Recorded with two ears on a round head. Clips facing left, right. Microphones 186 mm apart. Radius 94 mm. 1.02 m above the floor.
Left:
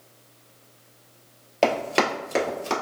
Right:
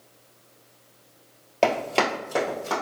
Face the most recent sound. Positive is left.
turn(degrees=35)  # may be behind; listen again after turning